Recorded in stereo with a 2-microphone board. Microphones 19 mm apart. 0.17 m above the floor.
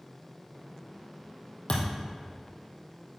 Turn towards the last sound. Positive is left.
turn(degrees=75)  # may be behind; listen again after turning